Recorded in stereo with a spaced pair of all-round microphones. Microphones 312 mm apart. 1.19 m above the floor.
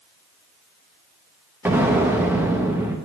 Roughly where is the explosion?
Centre.